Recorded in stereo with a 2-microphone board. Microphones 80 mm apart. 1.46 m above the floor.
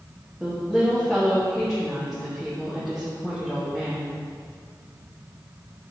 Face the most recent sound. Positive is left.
turn(degrees=0)  # may be behind; listen again after turning